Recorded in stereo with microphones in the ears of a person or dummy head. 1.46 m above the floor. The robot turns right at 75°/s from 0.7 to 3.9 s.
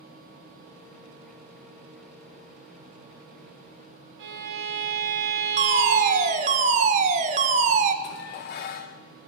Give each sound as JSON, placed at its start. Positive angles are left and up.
{"t": 4.2, "sound": "a violin", "side_deg": -55, "distance_m": 1.1}
{"t": 5.6, "sound": "a fire alarm", "side_deg": -35, "distance_m": 0.8}
{"t": 8.0, "sound": "dishes clattering", "side_deg": 50, "distance_m": 0.7}